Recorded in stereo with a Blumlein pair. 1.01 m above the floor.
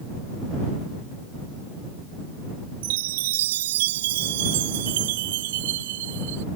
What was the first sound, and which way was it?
A chime, 55° right.